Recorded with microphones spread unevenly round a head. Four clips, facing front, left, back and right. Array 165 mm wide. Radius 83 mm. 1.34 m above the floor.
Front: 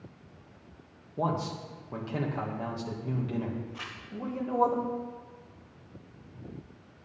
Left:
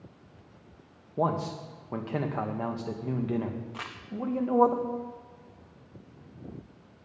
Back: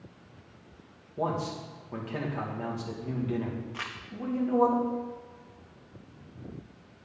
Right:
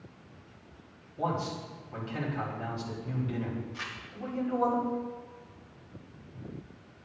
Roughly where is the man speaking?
Left.